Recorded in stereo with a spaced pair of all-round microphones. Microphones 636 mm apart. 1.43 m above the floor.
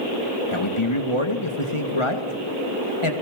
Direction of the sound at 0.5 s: 45° left (ahead or behind).